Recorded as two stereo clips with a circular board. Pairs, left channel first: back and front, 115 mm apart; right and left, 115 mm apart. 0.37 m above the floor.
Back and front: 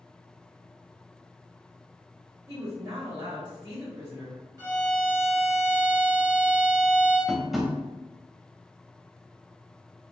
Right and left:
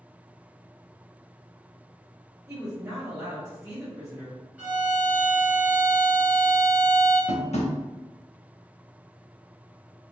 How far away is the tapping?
About 0.6 m.